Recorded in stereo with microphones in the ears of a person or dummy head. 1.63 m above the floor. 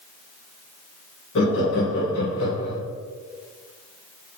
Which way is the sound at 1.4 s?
70° left (ahead or behind).